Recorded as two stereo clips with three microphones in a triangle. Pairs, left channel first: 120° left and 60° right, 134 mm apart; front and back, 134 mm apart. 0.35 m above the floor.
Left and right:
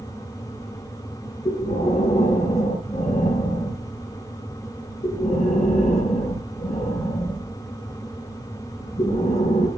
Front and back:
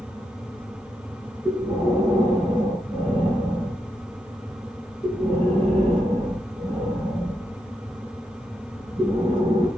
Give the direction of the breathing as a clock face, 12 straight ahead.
8 o'clock.